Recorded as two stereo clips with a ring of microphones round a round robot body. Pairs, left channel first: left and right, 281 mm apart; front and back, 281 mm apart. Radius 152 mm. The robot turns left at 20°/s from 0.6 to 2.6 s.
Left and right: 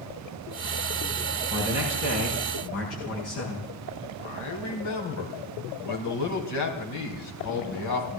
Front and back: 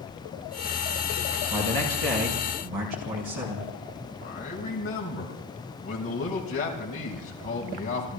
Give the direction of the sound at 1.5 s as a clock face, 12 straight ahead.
6 o'clock.